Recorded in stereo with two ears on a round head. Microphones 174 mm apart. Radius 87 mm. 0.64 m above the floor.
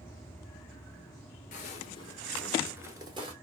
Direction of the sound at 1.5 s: 40° left (ahead or behind).